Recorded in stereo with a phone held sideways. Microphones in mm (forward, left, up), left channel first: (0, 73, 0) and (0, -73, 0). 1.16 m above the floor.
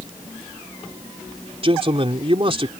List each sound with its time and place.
1.6 s a man speaking: 40° right (ahead or behind)